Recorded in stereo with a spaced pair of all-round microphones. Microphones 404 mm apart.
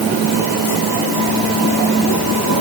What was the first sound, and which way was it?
Only background noise.